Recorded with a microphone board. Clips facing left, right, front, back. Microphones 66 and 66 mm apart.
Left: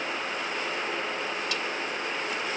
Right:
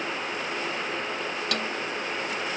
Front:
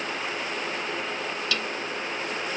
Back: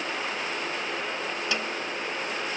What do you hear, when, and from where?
1.5 s a snare drum: 115° right